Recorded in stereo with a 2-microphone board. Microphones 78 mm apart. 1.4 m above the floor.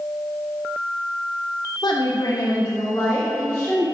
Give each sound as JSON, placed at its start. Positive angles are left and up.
{"t": 1.8, "sound": "a woman speaking", "side_deg": 70, "distance_m": 0.7}